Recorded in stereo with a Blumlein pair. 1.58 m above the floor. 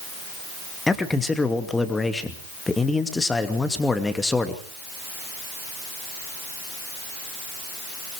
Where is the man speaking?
10° left, 2.5 m.